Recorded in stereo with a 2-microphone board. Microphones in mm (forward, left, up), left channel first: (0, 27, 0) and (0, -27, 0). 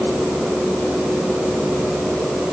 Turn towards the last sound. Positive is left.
No sound to turn to.